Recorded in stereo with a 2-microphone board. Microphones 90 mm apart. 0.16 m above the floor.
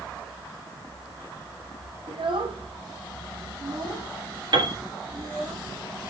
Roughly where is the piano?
Right.